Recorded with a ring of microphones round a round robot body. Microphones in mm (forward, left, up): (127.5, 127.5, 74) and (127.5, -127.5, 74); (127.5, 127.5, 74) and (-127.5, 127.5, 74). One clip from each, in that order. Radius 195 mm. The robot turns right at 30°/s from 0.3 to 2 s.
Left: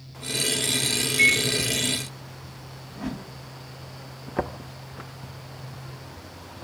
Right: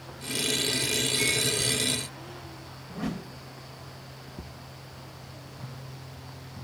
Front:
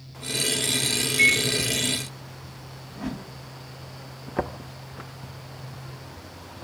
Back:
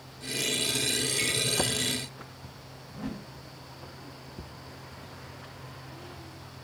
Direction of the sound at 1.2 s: 120° left.